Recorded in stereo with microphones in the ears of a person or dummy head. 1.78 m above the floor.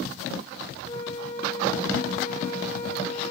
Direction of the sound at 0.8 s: 40° left (ahead or behind).